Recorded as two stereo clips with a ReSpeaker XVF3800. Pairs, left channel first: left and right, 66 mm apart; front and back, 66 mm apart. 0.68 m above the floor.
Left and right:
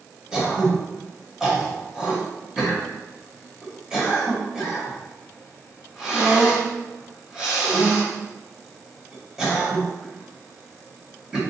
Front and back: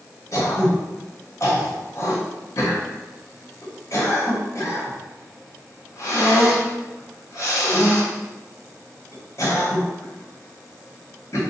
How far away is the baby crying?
No baby crying in this recording.